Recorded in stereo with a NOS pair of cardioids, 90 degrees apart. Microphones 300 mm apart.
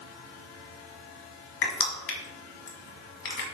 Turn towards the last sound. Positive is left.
turn(degrees=45)